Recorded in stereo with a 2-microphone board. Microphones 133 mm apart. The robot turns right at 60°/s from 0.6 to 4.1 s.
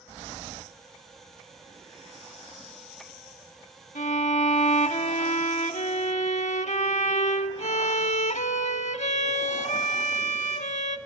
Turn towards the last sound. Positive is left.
turn(degrees=60)  # may be behind; listen again after turning